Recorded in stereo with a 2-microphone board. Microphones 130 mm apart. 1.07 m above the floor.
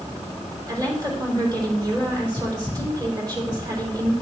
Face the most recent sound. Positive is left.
turn(degrees=-35)  # may be behind; listen again after turning